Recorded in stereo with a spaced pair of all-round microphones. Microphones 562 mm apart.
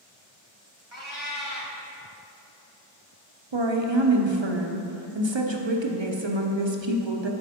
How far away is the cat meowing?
About 1.4 m.